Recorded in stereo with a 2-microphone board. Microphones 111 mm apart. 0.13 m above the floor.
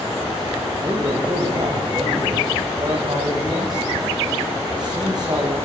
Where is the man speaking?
40° right (ahead or behind), 8 m.